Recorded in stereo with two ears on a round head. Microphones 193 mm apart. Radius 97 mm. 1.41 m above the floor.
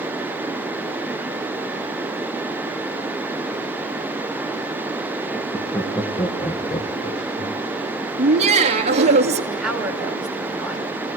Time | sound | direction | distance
5.3 | laughter | 5° left (ahead or behind) | 2 m
8.2 | laughter | 30° right (ahead or behind) | 3 m
9.5 | a woman speaking | centre (ahead or behind) | 7.5 m